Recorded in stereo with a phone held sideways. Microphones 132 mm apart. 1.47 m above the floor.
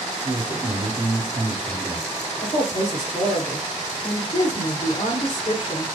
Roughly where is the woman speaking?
Left.